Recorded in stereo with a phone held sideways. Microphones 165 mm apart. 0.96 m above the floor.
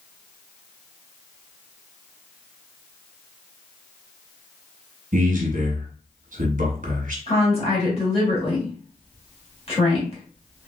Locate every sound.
5.1 s a man speaking: 55° right (ahead or behind), 1.0 m
7.3 s a woman speaking: 40° left (ahead or behind), 1.9 m